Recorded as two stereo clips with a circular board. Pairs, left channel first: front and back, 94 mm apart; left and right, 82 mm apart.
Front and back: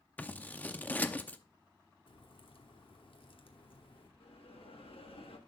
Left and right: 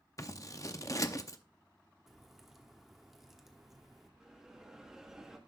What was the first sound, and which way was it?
Scissors, 65° left.